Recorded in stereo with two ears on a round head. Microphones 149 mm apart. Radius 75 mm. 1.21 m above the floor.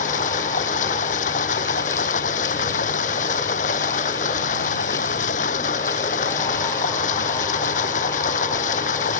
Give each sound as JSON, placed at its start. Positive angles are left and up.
{"t": 0.0, "sound": "running water", "side_deg": 45}